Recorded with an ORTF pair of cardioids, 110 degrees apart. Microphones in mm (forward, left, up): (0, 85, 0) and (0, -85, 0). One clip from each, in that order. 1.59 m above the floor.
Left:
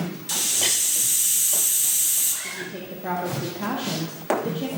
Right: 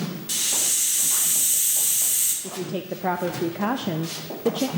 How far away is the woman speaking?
About 0.5 m.